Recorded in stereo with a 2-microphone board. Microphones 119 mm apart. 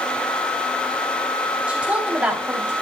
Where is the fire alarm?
No fire alarm in this recording.